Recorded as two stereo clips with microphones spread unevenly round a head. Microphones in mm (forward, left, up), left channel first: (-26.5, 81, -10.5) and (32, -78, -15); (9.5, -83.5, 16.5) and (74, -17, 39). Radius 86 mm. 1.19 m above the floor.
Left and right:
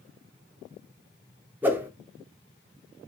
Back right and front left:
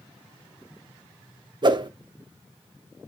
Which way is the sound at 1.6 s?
5° left.